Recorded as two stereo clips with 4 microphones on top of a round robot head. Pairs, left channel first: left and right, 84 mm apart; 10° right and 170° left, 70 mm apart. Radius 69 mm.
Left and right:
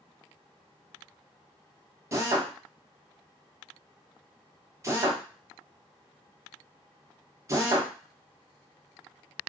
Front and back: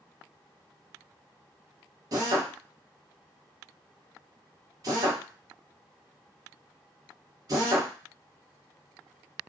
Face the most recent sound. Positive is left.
turn(degrees=-145)